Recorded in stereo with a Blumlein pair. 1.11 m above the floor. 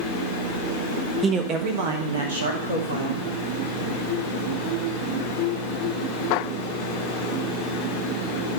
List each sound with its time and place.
1.2 s a man speaking: 20° right, 1.1 m; by 3.2 s 75° right, 3 m